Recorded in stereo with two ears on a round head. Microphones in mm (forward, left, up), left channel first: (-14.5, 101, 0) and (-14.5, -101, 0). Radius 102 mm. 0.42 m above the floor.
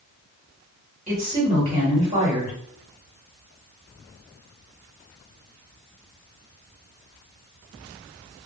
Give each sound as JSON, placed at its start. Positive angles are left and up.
{"t": 1.1, "sound": "a woman speaking", "side_deg": -30, "distance_m": 1.6}